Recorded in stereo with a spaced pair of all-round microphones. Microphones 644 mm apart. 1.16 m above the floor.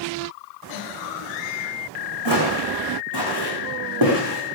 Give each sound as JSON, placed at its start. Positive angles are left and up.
{"t": 2.2, "sound": "footsteps", "side_deg": -45, "distance_m": 5.5}